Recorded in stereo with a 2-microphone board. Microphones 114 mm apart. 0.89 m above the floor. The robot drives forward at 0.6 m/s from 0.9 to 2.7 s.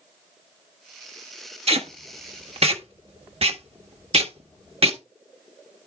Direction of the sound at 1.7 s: 65° right (ahead or behind).